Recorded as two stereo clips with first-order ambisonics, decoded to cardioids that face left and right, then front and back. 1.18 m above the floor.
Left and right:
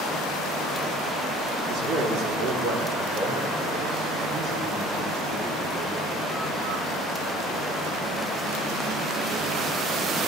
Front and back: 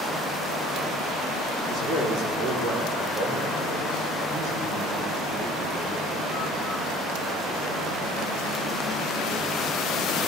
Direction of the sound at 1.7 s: 145° right.